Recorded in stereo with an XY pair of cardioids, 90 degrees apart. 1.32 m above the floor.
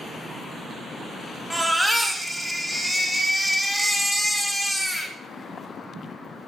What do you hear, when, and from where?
1.5 s a baby crying: 5° right, 1.8 m